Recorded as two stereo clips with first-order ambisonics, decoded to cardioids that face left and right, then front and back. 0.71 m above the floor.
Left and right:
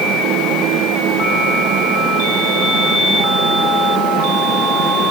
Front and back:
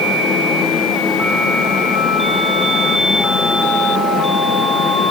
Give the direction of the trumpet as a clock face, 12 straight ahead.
I don't hear a trumpet.